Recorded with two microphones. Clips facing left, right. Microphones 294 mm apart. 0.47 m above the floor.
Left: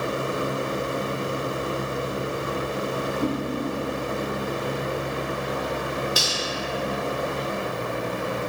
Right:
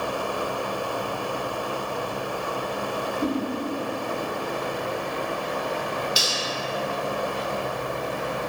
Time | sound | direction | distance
3.2 | a whoosh | 5° right (ahead or behind) | 0.8 m
6.2 | cutlery clinking | 60° left (ahead or behind) | 0.7 m